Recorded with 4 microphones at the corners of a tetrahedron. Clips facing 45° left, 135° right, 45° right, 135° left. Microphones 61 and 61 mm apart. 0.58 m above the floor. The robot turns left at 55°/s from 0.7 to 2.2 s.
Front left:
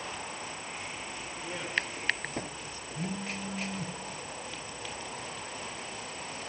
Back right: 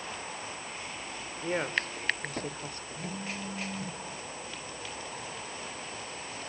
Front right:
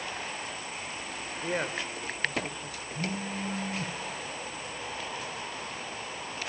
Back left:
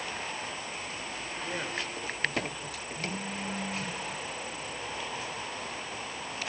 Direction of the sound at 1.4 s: 90° right.